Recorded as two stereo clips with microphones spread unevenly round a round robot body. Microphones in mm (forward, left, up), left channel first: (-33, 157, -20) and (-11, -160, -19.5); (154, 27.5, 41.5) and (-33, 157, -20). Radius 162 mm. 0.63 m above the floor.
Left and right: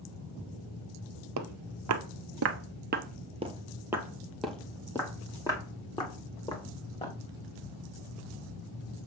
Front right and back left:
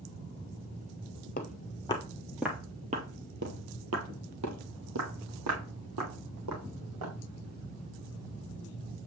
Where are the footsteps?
75° right, 1.0 m; by 7.1 s 165° left, 2.5 m.